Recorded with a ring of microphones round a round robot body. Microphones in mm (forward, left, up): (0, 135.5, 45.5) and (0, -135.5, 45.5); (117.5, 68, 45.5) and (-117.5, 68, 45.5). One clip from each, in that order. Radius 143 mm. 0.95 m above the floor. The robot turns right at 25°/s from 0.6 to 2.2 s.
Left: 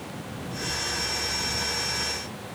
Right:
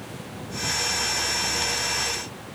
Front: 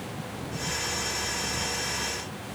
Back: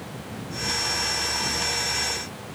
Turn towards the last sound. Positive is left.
No sound to turn to.